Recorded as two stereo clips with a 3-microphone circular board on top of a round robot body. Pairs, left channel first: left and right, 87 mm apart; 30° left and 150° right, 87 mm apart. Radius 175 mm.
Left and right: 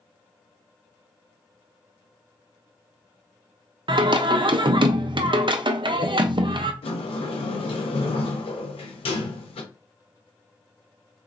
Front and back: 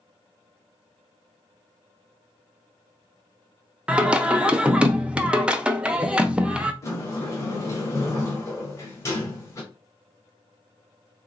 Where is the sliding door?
90° left, 0.6 m.